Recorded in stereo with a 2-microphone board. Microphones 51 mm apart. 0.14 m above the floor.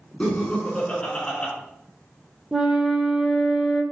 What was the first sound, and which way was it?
Laughter, 20° left (ahead or behind).